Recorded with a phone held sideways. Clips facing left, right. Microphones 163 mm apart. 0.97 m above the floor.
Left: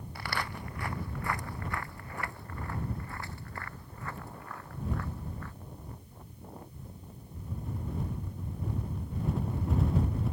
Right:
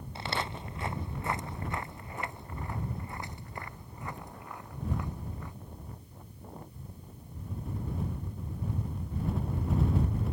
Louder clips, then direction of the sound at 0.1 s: Right 2 dB; 25° right (ahead or behind).